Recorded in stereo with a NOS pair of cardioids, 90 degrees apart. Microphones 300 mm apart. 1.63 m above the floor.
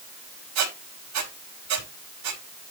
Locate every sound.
0.6 s a squeak: 70° right, 5 m